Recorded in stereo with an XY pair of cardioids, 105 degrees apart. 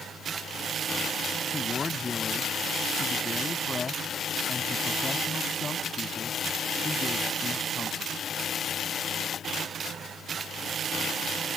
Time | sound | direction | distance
1.5 | a man speaking | 30° left | ?